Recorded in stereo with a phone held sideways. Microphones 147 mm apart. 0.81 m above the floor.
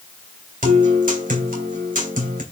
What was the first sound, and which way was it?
A guitar, 75° right (ahead or behind).